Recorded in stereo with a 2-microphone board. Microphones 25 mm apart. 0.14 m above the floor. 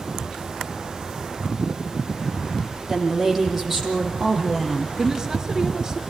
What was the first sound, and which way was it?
A woman speaking, 15° right (ahead or behind).